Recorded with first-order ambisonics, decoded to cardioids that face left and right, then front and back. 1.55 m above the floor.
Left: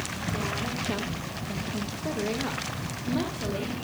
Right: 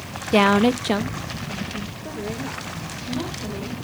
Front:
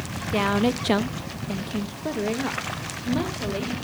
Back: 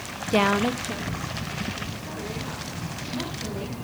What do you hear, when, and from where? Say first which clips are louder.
0.3 s a woman speaking: right 17 dB, back 1 dB; 105° right, 0.7 m; by 3.8 s 25° left, 3.5 m